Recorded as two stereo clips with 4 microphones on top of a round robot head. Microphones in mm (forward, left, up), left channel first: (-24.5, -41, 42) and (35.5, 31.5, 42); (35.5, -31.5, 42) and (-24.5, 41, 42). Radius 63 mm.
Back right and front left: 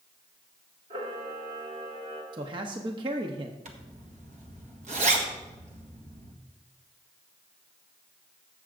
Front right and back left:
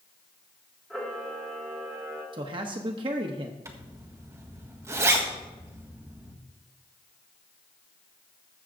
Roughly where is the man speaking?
Left.